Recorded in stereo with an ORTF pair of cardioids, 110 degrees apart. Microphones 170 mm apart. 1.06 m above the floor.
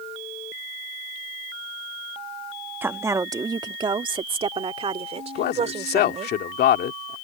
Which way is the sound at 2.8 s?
10° right.